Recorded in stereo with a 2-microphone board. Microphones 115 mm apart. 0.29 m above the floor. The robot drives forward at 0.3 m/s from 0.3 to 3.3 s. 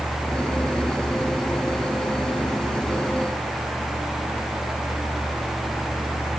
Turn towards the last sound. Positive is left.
No sound to turn to.